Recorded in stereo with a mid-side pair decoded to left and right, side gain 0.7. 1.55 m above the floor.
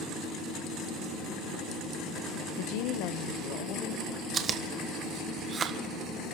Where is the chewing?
35° right, 1.5 m.